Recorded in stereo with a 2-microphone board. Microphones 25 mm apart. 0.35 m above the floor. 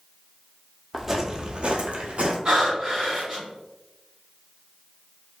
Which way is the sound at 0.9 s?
15° right (ahead or behind).